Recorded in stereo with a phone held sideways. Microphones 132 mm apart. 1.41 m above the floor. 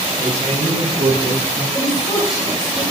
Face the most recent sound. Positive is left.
turn(degrees=25)  # may be behind; listen again after turning